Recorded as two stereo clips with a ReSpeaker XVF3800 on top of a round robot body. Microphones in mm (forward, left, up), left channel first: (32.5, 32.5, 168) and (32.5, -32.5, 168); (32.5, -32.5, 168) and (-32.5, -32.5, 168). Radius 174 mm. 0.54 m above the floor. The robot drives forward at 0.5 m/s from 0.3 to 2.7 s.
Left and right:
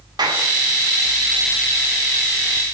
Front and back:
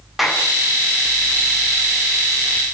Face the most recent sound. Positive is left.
turn(degrees=-110)